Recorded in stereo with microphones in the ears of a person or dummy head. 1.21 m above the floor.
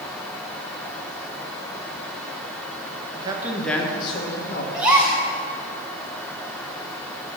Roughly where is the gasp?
Centre.